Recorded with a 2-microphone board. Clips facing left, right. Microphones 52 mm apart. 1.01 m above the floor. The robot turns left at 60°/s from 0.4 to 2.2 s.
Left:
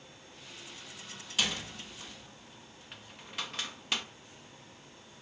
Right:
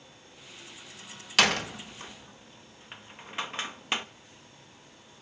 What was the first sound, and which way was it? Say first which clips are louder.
A door slam: right 9 dB; 75° right (ahead or behind).